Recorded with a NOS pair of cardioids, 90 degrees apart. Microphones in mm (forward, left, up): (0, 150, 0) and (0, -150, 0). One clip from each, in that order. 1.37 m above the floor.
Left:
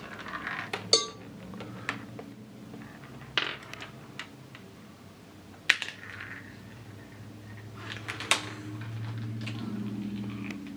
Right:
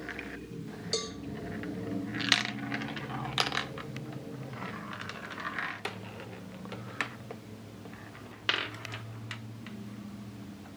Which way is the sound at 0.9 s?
60° left.